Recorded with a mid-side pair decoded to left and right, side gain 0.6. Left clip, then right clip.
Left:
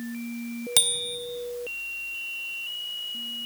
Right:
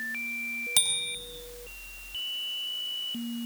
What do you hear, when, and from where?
0.8 s a bicycle bell: 20° left, 4.5 m